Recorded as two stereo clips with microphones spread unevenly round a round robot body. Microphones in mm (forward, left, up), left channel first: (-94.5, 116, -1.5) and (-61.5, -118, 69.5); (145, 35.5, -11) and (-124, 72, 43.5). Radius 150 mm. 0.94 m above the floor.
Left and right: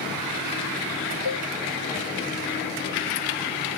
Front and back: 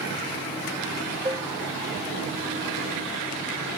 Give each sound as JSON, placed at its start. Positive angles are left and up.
{"t": 1.2, "sound": "dishes clattering", "azimuth_deg": 95}